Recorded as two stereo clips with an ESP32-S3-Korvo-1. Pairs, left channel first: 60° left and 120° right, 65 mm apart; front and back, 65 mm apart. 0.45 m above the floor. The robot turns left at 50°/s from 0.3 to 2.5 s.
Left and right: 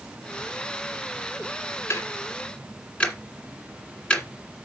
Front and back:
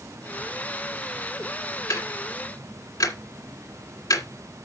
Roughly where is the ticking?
Ahead.